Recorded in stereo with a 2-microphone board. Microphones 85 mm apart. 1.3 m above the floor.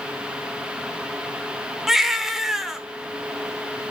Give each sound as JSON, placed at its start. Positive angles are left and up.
{"t": 1.9, "sound": "a baby crying", "side_deg": -5, "distance_m": 1.0}